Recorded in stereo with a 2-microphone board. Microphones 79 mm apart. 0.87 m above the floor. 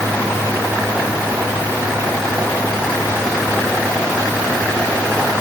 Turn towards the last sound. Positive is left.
No sound to turn to.